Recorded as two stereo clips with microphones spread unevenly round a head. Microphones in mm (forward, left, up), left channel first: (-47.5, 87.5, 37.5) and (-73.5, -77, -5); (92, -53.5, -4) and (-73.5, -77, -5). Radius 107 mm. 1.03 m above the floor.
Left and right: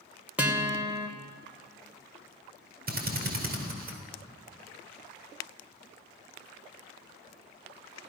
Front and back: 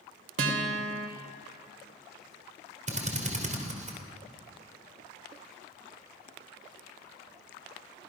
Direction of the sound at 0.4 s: Straight behind.